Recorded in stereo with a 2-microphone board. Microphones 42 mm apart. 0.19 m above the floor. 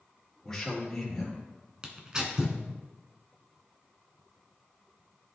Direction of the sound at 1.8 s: 20° right (ahead or behind).